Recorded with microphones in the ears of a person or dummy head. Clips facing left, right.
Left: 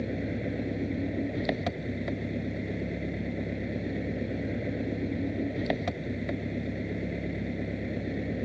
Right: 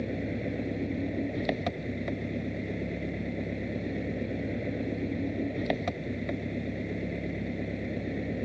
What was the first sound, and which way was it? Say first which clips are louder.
An engine running: even; centre (ahead or behind).